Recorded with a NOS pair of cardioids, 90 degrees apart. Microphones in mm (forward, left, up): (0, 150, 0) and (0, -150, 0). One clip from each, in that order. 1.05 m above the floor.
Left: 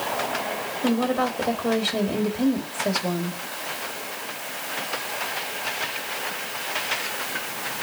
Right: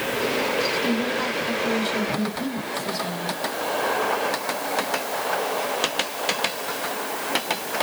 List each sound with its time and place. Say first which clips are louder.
0.8 s a woman speaking: left 1 dB; 65° left, 2.5 m